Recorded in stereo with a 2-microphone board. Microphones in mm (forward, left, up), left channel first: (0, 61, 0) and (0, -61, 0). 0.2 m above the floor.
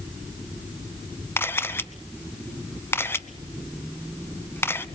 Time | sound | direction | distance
1.4 | a camera shutter | 20° left (ahead or behind) | 0.8 m